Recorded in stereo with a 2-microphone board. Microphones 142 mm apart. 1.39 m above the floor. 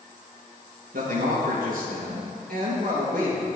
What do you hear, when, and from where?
0.9 s a man speaking: 80° right, 1.1 m